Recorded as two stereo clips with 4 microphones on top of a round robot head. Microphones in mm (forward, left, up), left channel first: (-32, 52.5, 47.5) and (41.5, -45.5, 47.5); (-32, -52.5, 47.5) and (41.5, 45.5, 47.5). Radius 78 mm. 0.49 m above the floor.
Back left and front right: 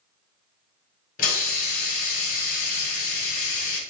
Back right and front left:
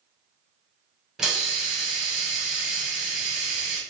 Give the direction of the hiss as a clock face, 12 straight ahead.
7 o'clock.